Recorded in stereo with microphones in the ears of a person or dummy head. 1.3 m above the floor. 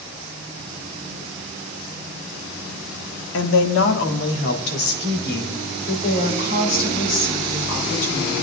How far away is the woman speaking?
About 1.8 m.